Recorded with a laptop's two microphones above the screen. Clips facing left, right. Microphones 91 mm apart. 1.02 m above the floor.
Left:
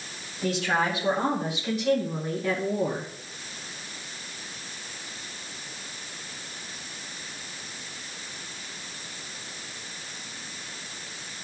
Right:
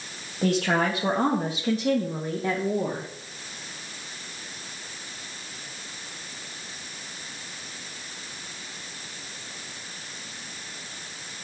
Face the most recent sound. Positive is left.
turn(degrees=-15)  # may be behind; listen again after turning